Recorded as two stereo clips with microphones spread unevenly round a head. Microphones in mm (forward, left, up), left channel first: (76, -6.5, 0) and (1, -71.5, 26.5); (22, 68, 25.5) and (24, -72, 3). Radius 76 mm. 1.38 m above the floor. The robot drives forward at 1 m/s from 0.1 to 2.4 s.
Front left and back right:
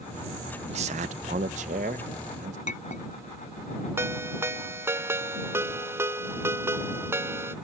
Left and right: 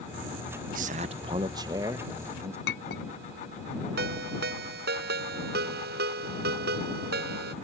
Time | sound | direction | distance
0.7 | a man speaking | 120° right | ?
2.7 | a clink | 85° left | ?
4.0 | a ringtone | 75° right | ?